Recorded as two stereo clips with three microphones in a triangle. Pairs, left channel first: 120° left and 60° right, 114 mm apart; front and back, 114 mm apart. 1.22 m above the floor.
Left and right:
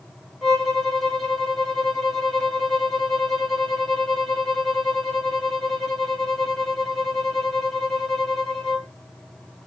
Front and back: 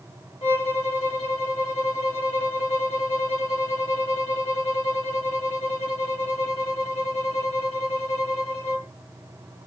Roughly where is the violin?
Ahead left.